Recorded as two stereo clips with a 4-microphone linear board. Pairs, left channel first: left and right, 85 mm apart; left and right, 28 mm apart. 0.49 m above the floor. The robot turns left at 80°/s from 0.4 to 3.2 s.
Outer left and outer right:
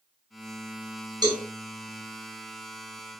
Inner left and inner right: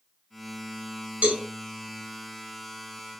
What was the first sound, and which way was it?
A cowbell, 55° right (ahead or behind).